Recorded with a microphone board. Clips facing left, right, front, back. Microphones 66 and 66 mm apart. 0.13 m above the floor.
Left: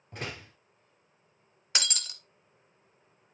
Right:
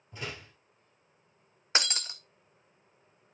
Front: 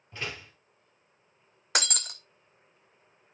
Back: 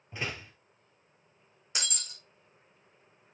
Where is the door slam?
110° left, 2 m.